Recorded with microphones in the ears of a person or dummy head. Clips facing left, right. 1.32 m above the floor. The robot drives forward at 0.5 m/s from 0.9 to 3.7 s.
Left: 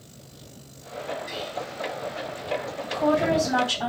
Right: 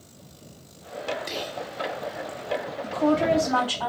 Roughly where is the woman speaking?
Centre.